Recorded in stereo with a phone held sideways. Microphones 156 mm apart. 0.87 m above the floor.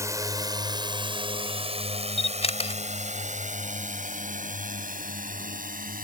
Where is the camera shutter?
40° left (ahead or behind).